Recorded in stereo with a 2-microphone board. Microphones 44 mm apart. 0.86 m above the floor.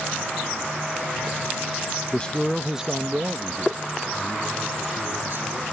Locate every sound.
2.1 s a man speaking: 30° left (ahead or behind); by 5.6 s 55° right (ahead or behind)